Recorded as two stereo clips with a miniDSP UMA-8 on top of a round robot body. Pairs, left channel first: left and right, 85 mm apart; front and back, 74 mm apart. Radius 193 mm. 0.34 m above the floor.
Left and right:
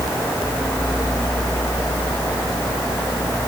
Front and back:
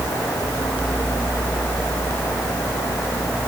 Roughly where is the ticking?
I don't hear ticking.